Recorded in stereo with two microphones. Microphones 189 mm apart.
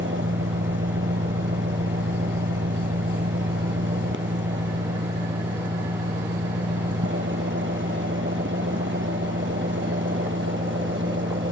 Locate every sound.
0.0 s an engine running: 75° right (ahead or behind)